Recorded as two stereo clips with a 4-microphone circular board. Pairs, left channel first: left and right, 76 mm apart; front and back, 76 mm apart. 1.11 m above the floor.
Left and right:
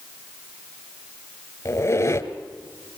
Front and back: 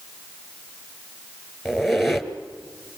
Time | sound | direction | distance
1.6 | a squeak | 90° left | 1.3 m